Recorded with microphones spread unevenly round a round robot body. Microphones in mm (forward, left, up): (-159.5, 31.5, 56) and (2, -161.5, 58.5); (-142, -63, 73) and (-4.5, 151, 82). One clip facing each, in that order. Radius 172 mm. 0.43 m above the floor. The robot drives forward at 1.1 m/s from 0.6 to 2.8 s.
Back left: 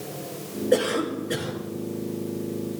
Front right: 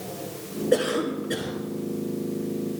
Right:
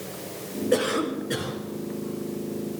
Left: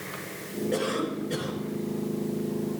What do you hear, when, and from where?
0.7 s a cough: 140° right, 5.5 m; by 1.6 s 145° right, 6.5 m